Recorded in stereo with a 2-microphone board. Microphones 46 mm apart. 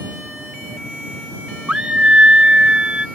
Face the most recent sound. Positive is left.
turn(degrees=-20)  # may be behind; listen again after turning